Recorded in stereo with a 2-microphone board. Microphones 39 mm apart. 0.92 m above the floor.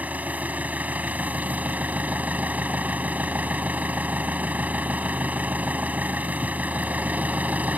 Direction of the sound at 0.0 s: 40° right (ahead or behind).